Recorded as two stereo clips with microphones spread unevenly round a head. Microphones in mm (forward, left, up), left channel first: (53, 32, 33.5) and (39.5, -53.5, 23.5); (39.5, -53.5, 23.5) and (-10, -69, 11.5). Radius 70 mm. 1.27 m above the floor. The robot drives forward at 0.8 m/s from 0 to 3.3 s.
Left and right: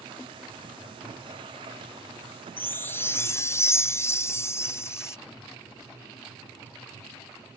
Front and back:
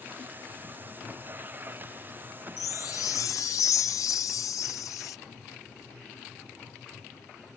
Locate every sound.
2.6 s a chime: 10° left; by 5.2 s 20° left